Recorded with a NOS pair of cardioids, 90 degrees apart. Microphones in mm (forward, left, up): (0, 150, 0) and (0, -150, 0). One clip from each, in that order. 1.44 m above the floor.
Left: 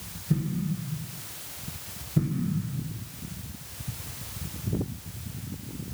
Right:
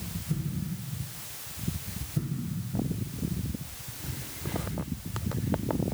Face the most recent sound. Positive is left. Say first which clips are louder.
# left 7 dB
turn(degrees=30)